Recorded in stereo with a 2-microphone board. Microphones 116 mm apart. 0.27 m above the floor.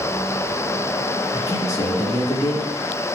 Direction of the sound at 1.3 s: 30° left (ahead or behind).